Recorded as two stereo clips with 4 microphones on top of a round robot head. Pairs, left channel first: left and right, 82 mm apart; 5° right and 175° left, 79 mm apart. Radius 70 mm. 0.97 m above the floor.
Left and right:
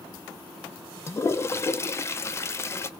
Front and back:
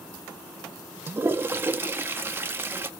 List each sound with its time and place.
1.1 s a toilet flushing: 130° left, 0.5 m